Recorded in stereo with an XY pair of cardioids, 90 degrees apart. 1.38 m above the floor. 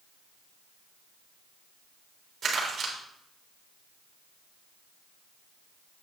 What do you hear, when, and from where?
2.4 s crumpling: 60° right, 3.5 m